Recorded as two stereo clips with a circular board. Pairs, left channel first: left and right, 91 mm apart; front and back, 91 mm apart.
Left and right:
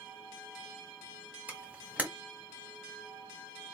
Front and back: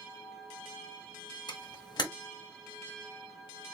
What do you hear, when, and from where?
1.5 s a camera shutter: 20° right, 1.5 m